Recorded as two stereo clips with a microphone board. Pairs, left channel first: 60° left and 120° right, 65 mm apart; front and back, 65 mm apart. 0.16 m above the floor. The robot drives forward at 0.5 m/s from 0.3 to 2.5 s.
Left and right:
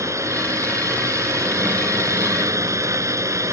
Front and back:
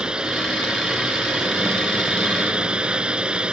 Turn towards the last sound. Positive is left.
turn(degrees=-110)